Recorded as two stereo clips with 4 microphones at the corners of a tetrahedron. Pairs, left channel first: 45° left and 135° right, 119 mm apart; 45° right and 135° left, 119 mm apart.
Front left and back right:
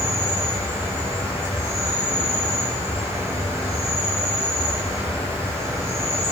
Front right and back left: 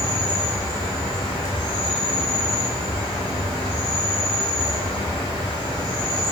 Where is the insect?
165° left, 1.1 m.